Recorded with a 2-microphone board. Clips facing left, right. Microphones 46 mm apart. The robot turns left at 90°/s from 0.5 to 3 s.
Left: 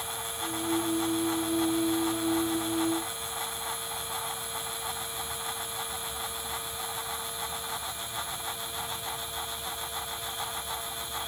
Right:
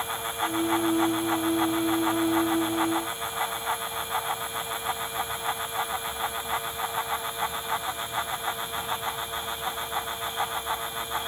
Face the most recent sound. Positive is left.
No sound to turn to.